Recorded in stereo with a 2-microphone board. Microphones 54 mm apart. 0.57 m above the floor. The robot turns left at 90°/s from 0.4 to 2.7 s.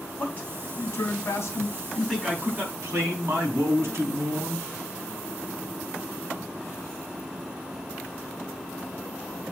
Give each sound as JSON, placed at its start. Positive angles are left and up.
{"t": 0.2, "sound": "a man speaking", "azimuth_deg": 150, "distance_m": 4.5}